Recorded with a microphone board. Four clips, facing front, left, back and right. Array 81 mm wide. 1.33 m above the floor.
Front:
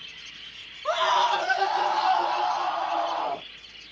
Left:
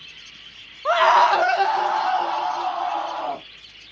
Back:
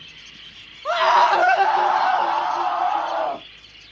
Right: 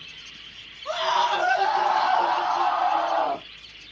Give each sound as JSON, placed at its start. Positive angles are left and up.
{"t": 0.8, "sound": "a scream", "azimuth_deg": 100, "distance_m": 0.7}